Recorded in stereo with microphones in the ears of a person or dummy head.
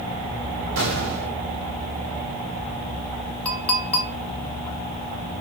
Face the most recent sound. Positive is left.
turn(degrees=10)  # may be behind; listen again after turning